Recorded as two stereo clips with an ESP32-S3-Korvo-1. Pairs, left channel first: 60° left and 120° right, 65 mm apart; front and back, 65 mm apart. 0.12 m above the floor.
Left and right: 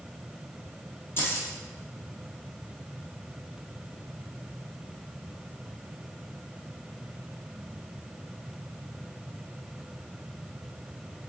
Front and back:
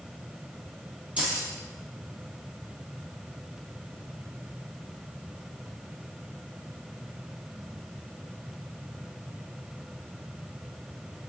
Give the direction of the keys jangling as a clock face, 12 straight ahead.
8 o'clock.